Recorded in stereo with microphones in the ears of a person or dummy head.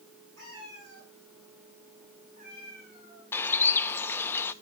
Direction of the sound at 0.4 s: 80° right.